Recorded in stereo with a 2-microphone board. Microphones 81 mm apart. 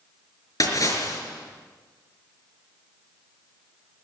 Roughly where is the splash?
Left.